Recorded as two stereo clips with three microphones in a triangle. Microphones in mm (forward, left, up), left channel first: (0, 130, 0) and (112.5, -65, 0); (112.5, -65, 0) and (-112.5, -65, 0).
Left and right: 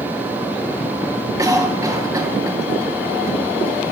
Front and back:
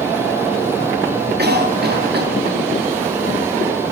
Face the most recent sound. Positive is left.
turn(degrees=-135)